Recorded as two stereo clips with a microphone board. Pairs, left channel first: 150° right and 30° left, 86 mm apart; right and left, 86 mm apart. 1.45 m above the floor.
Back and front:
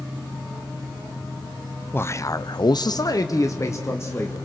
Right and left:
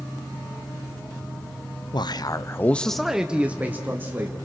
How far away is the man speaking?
About 0.8 m.